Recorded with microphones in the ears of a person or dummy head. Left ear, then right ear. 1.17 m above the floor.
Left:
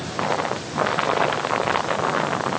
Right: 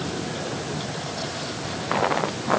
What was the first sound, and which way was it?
Only background noise.